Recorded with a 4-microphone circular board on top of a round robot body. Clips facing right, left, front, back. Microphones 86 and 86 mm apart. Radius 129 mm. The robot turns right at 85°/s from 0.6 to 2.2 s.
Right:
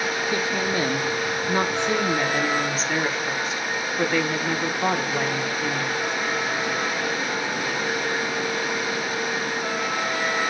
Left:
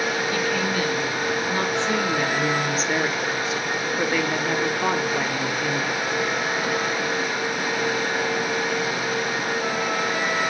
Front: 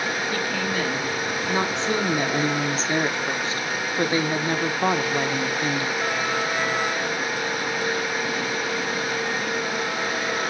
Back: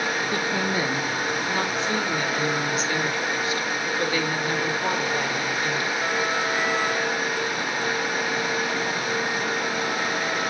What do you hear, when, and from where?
0.3 s a woman speaking: 135° right, 1.5 m; by 6.0 s straight ahead, 1.5 m